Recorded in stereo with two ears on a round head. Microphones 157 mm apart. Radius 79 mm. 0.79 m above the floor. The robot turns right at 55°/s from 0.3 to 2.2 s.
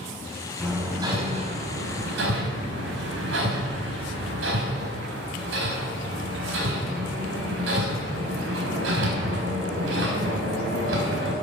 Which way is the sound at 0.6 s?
Centre (ahead or behind).